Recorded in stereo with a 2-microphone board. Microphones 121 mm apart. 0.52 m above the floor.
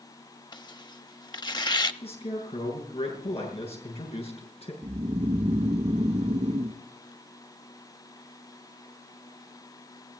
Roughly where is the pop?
I don't hear a pop.